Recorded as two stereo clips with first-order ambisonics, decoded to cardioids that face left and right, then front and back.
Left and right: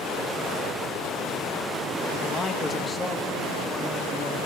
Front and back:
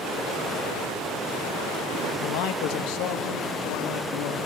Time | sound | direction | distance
2.2 | a man speaking | 15° left | 1.1 m